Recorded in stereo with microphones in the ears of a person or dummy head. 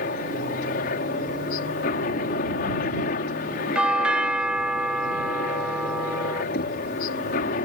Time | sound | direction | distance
0.0 | a helicopter | 50° left (ahead or behind) | ?
3.8 | a doorbell | 5° right (ahead or behind) | ?
6.5 | knocking | 60° left (ahead or behind) | ?